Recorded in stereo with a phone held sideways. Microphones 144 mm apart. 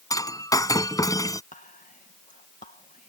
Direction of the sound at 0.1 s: 25° left (ahead or behind).